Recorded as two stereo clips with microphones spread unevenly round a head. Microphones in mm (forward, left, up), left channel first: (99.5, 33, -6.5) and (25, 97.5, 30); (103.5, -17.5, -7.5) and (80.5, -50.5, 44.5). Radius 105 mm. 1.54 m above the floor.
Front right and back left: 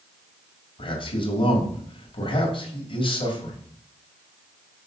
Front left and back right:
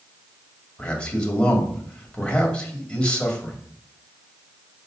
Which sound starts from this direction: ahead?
A man speaking, at 0.8 s.